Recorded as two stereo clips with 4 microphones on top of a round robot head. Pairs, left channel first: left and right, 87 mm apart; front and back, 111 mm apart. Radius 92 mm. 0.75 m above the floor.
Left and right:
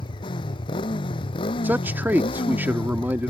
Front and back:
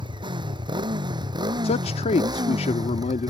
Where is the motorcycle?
135° left; by 3.3 s 125° left.